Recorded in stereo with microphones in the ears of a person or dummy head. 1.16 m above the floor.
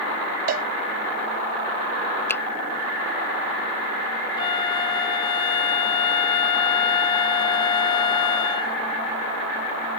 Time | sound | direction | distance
0.5 | a cowbell | 50° right (ahead or behind) | ?
2.3 | a finger snap | 10° left (ahead or behind) | ?
4.4 | a flute | 25° left (ahead or behind) | ?